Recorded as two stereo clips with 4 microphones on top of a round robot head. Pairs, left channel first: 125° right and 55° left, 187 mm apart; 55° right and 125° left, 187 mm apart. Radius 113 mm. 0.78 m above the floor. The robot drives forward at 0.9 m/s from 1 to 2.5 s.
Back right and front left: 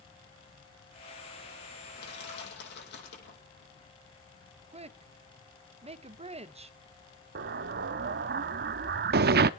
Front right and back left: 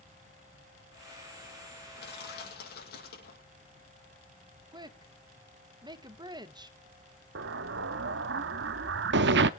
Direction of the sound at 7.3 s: 95° left.